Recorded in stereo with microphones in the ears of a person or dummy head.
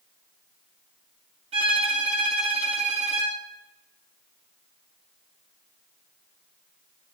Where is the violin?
30° right (ahead or behind), 2 m.